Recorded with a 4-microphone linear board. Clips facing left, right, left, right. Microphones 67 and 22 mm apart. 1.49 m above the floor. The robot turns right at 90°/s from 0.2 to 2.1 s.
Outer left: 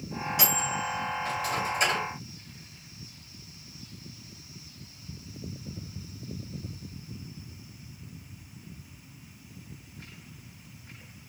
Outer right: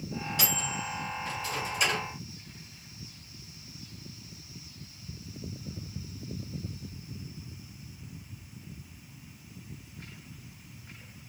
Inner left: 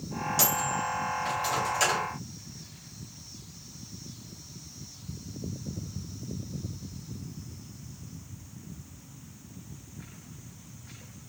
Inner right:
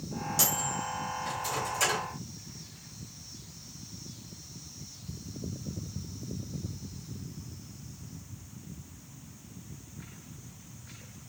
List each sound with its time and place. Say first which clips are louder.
0.4 s a microwave: outer left 5 dB, inner left 2 dB; 15° left (ahead or behind), 2.5 m